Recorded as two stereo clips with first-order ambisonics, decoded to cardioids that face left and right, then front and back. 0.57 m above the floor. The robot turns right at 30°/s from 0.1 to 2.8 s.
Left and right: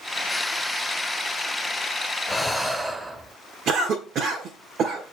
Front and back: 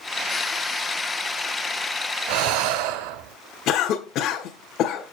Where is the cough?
40° right, 1.1 m.